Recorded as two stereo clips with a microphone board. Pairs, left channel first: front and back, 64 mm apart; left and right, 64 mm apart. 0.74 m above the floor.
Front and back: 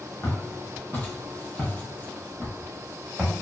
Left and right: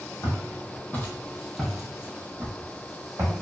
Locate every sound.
0.2 s footsteps: 60° left, 1.2 m; by 3.3 s 90° right, 1.1 m